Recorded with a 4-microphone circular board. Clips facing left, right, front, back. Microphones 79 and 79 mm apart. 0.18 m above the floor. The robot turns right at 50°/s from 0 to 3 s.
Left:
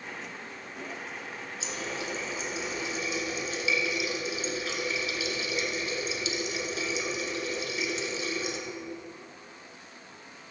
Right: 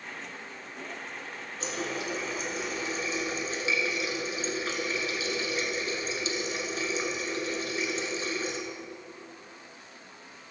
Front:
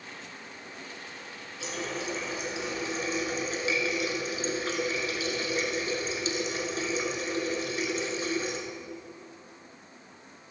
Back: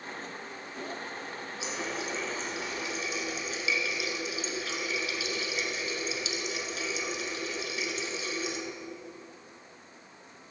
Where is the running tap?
115° right, 1.5 m; by 8.6 s 45° right, 1.5 m.